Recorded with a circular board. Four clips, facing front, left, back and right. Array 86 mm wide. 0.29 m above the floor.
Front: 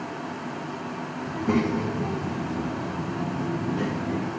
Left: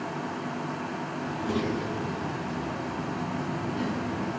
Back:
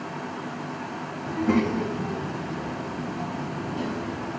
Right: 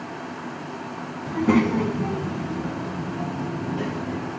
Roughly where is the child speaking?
Right.